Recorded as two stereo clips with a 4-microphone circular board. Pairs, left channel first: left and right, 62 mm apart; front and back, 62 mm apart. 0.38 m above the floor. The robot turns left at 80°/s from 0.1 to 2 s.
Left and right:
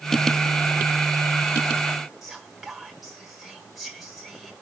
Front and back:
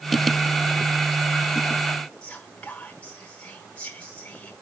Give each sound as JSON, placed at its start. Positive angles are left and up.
{"t": 2.2, "sound": "whispering", "azimuth_deg": -10, "distance_m": 1.4}